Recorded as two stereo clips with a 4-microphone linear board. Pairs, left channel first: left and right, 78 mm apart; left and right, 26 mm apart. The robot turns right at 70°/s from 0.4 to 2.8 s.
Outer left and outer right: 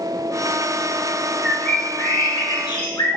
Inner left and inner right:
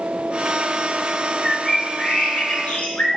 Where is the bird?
5° right, 0.9 m; by 3.1 s 95° left, 0.9 m.